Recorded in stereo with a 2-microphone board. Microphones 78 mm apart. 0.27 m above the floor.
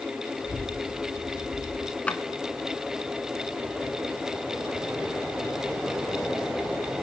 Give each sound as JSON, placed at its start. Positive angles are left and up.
{"t": 0.4, "sound": "a child speaking", "side_deg": -80, "distance_m": 7.0}
{"t": 2.1, "sound": "a drawer", "side_deg": 15, "distance_m": 1.9}